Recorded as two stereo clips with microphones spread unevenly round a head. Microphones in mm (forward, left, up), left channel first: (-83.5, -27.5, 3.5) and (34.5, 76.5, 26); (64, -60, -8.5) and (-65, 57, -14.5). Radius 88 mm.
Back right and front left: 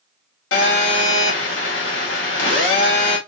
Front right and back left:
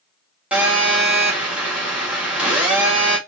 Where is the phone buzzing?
140° right, 2.5 m.